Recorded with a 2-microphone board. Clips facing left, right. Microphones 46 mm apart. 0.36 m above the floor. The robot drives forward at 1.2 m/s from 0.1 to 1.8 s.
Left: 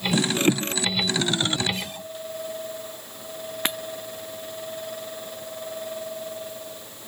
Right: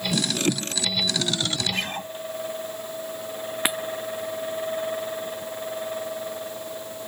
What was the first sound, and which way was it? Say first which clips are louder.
A guitar: right 5 dB; 45° right (ahead or behind).